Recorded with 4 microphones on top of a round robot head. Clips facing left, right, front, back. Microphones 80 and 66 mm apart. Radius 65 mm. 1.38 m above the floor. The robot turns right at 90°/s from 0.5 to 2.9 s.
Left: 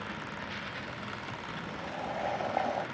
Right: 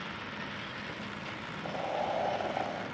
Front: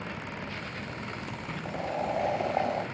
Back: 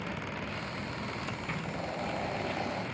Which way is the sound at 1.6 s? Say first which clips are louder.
Right 7 dB, front 7 dB; 65° right.